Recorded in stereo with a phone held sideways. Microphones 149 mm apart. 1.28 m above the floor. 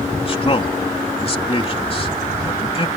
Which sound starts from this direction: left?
A man speaking, at 0.2 s.